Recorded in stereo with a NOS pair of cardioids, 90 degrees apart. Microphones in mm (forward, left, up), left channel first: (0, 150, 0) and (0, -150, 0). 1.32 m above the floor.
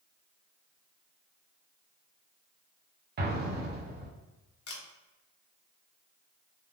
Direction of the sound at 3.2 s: 35° right.